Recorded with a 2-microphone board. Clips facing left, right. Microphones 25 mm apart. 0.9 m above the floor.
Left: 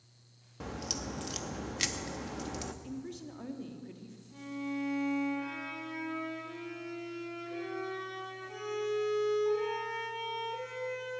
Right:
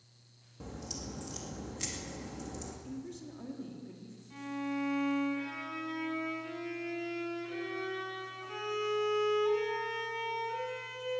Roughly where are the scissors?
No scissors in this recording.